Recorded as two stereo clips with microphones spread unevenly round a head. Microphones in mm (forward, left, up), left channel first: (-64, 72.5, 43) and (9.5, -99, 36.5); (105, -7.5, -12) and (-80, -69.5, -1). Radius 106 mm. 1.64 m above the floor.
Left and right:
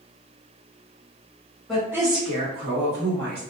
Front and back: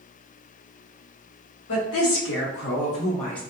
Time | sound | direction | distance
1.7 | a woman speaking | 25° left | 1.0 m